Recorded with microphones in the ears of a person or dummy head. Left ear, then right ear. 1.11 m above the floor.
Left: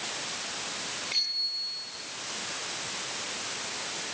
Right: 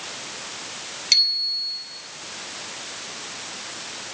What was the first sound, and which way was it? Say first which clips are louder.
A bicycle bell: right 10 dB; 65° right (ahead or behind).